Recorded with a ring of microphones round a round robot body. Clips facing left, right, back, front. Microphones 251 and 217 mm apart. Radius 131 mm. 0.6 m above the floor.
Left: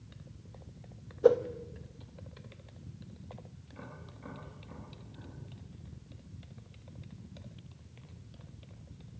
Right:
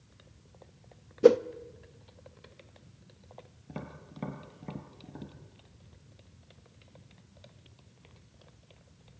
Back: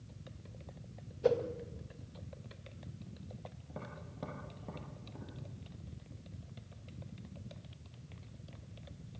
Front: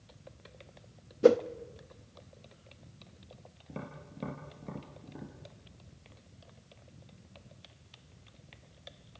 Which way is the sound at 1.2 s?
40° right.